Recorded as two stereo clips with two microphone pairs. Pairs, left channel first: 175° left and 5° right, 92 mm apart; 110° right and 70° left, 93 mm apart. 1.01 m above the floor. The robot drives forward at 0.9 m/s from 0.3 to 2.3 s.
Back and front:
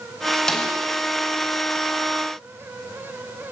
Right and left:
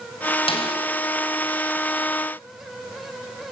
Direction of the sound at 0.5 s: 100° right.